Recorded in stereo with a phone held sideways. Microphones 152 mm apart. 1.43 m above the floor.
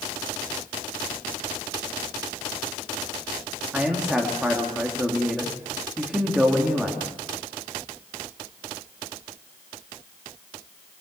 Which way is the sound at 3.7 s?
5° right (ahead or behind).